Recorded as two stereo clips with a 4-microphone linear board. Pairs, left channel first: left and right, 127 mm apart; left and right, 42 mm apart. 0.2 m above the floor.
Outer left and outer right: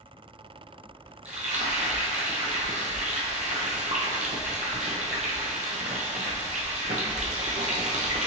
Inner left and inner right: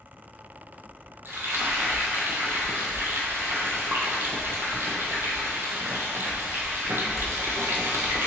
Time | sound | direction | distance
1.2 | frying | 75° right (ahead or behind) | 0.8 m